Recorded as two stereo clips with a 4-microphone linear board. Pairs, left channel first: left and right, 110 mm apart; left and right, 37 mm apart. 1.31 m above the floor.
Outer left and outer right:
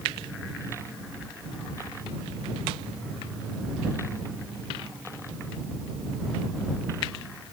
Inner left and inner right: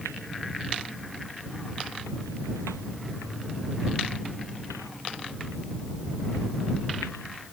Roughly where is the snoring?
I don't hear snoring.